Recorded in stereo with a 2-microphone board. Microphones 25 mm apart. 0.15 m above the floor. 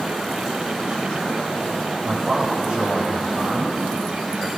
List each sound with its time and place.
2.0 s a man speaking: 35° right (ahead or behind), 8.5 m